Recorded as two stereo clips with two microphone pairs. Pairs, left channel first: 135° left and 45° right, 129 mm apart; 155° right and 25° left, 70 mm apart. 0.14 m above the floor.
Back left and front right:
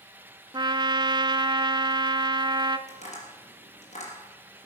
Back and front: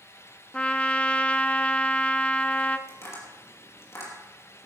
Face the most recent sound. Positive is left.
turn(degrees=160)